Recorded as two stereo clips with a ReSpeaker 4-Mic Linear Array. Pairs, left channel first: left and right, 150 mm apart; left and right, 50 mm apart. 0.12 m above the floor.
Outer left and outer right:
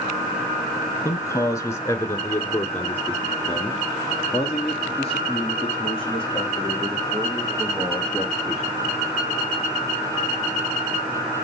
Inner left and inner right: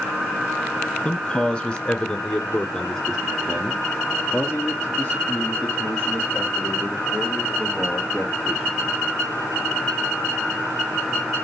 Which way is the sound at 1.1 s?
20° left (ahead or behind).